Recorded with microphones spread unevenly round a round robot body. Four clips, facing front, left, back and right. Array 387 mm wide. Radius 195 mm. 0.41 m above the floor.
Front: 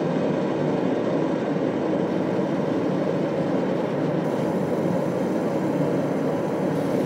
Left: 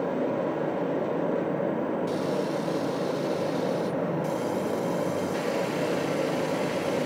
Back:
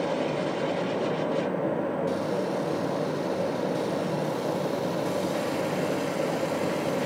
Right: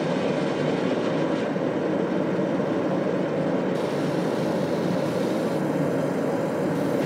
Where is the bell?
No bell in this recording.